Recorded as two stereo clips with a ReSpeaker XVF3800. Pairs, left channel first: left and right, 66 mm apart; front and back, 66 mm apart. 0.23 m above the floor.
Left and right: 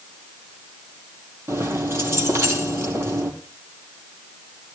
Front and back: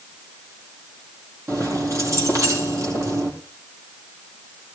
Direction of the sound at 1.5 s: 140° right.